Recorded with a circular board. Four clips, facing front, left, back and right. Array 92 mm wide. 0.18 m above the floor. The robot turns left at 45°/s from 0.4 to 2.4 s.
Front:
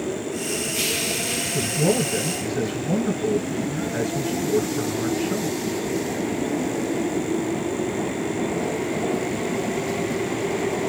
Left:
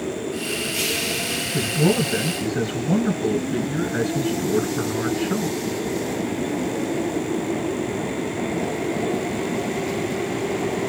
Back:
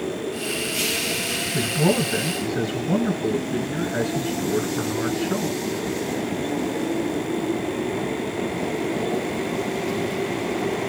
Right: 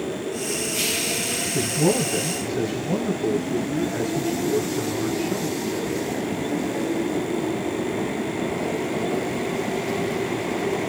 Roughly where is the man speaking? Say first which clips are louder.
Left 1 dB, back 1 dB; behind.